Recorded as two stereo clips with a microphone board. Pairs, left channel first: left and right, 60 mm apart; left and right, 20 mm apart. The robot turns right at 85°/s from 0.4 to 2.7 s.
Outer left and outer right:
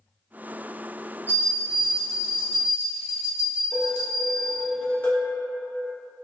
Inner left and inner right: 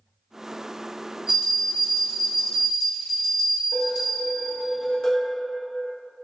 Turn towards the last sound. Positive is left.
turn(degrees=30)  # may be behind; listen again after turning